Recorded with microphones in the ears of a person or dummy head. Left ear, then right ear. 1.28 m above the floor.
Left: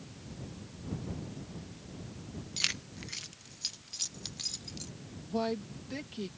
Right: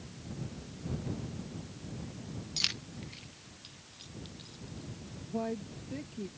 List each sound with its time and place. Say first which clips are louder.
2.6 s keys jangling: even; centre (ahead or behind); by 4.9 s 70° left (ahead or behind)
5.3 s a woman speaking: left 3 dB; 50° left (ahead or behind)